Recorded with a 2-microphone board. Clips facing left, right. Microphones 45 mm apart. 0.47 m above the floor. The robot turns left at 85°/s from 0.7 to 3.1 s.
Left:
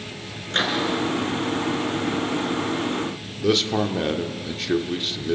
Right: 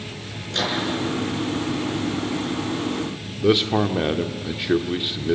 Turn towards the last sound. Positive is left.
turn(degrees=-15)  # may be behind; listen again after turning